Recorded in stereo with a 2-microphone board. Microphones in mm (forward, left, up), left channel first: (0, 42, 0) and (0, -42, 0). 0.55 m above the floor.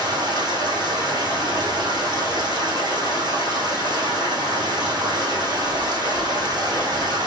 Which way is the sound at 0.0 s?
65° right (ahead or behind).